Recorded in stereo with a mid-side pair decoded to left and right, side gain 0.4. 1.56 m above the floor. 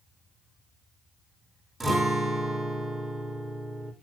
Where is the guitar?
25° right, 3.5 m.